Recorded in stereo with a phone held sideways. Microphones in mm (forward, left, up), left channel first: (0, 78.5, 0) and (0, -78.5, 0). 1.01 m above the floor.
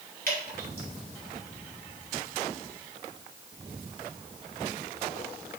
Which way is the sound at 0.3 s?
70° right (ahead or behind).